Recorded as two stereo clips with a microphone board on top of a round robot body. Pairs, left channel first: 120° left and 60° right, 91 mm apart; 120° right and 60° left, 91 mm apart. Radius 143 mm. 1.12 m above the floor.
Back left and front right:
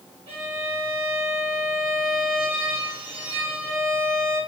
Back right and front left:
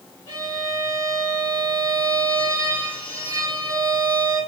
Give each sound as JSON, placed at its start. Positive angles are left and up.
{"t": 0.3, "sound": "a violin", "azimuth_deg": -80, "distance_m": 1.2}